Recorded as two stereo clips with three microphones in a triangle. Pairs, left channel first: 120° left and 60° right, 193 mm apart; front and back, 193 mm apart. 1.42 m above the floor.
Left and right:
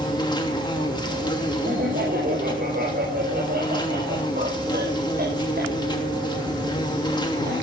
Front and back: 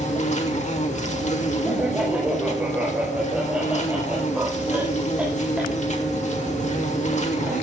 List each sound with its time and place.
0.0 s an insect: 50° left, 2.5 m
1.6 s laughter: 95° right, 5.5 m